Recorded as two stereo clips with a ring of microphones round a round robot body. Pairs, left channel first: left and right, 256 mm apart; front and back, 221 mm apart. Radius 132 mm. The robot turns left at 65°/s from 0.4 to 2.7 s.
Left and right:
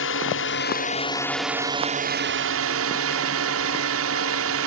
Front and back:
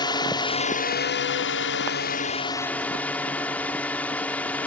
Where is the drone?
65° left; by 4.7 s 85° right.